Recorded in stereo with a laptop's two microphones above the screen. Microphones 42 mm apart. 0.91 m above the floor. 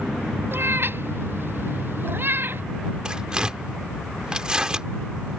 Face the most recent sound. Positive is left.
turn(degrees=-20)  # may be behind; listen again after turning